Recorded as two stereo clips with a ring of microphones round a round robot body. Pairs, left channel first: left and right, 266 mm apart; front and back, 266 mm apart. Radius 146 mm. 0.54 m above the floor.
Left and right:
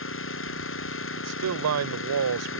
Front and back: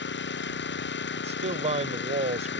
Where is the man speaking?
115° right.